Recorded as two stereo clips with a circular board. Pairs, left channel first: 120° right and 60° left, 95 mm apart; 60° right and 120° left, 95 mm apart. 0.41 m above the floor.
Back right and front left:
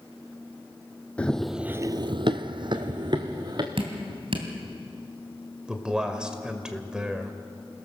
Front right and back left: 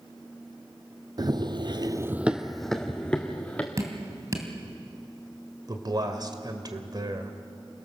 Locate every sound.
1.2 s running footsteps: 165° left, 1.0 m; by 3.7 s 15° left, 2.5 m
3.8 s dripping: 65° left, 2.5 m
5.7 s a man speaking: 140° left, 1.9 m